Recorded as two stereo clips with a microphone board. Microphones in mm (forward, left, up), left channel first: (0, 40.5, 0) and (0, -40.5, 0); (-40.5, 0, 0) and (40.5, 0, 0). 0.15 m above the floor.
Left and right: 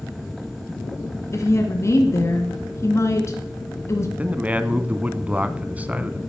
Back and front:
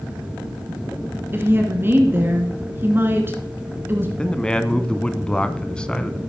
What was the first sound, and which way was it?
A woman speaking, 55° left.